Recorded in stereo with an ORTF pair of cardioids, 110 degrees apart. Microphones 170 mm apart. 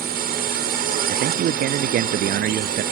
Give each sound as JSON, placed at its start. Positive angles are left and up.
{"t": 0.0, "sound": "a drone", "azimuth_deg": -65}
{"t": 1.1, "sound": "a man speaking", "azimuth_deg": -65}